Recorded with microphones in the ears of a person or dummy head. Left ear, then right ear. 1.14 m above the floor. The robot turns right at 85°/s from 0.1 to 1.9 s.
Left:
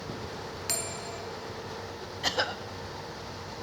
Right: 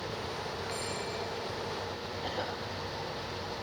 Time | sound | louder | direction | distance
0.7 | a bell | left 1 dB | 80° left | 3 m
2.2 | a cough | left 8 dB | 55° left (ahead or behind) | 0.9 m